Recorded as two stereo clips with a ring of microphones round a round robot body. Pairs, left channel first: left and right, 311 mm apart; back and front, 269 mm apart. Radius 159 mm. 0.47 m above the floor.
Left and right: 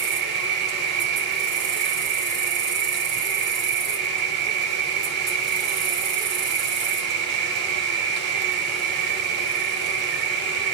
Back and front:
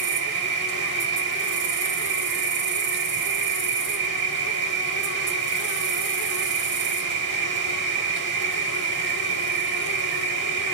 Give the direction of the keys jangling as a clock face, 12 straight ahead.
I don't hear keys jangling.